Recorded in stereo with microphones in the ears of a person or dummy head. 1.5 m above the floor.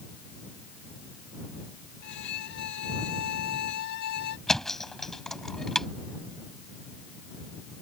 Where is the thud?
5° left (ahead or behind).